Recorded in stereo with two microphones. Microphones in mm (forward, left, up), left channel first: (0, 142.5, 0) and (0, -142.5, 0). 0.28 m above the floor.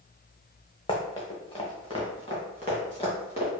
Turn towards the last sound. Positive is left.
turn(degrees=20)  # may be behind; listen again after turning